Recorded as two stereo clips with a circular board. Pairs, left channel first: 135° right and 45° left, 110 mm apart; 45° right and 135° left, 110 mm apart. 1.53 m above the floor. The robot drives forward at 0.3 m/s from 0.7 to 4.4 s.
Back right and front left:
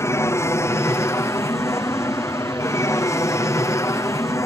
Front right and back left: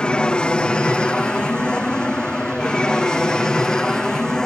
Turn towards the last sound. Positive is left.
turn(degrees=-120)